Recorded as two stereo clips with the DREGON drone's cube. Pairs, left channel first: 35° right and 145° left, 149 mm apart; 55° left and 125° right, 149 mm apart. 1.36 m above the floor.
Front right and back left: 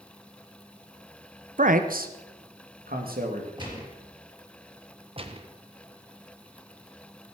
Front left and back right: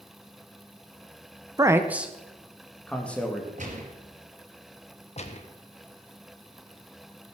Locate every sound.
1.6 s a man speaking: 170° left, 0.8 m; by 3.5 s 135° left, 2.5 m
3.6 s a gunshot: 155° right, 4 m
5.2 s a gunshot: 95° left, 1.2 m